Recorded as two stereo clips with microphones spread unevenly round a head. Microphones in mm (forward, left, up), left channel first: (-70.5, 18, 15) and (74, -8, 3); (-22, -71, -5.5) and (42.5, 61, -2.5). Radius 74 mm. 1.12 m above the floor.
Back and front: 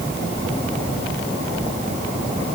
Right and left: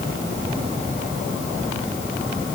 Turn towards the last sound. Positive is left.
No sound to turn to.